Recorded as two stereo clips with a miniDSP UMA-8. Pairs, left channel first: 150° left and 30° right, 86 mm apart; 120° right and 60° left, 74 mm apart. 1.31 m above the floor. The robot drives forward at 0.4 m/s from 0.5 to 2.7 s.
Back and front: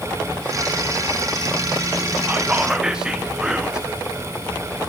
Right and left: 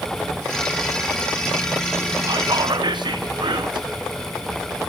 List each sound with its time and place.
2.3 s whispering: 40° left, 0.6 m; by 3.9 s 50° left, 0.5 m